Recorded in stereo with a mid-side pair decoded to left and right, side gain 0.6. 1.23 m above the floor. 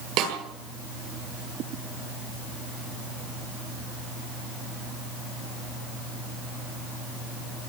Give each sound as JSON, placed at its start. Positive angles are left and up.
{"t": 0.2, "sound": "a snare drum", "azimuth_deg": -65, "distance_m": 9.0}